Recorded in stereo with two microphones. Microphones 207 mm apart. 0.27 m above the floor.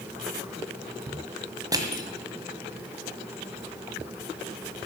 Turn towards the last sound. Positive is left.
turn(degrees=-20)  # may be behind; listen again after turning